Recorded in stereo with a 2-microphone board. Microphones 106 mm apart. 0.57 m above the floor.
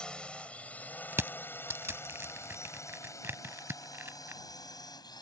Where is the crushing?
25° right (ahead or behind).